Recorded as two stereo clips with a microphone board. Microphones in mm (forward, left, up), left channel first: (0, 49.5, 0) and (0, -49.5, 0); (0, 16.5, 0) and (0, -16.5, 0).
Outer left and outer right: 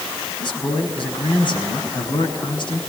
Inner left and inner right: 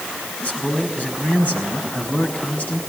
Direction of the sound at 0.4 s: 50° left (ahead or behind).